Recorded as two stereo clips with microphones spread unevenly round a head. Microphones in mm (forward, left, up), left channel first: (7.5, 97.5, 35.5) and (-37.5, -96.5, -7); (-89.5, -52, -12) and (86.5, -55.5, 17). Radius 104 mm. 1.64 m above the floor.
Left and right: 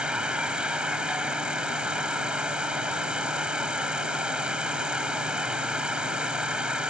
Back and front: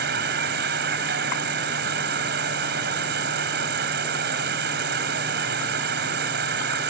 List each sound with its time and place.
0.0 s an insect: 15° right